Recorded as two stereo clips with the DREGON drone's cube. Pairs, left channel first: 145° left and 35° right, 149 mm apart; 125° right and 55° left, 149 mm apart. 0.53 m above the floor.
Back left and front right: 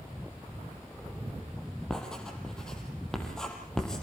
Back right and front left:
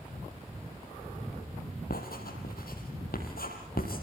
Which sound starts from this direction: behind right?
Writing, at 1.9 s.